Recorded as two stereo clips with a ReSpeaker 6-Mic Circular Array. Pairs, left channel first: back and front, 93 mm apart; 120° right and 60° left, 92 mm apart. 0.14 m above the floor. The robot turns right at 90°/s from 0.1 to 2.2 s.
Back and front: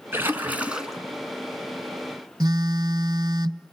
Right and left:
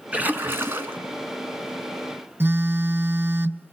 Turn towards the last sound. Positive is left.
turn(degrees=5)